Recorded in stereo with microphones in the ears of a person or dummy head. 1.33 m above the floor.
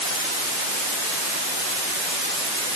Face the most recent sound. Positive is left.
No sound to turn to.